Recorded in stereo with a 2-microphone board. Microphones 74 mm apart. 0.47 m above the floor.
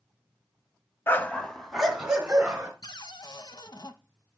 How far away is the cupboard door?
About 0.8 m.